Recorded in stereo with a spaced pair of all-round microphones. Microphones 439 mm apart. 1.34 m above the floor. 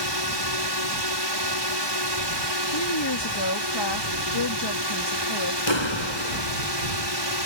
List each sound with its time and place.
0.0 s a drone: 70° right (ahead or behind)
2.7 s a woman speaking: 70° left (ahead or behind)
5.7 s a clap: 85° left